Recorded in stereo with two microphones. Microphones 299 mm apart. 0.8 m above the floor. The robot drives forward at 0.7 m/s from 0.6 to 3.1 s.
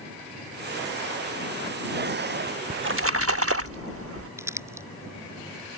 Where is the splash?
35° right (ahead or behind); by 4.3 s 50° right (ahead or behind).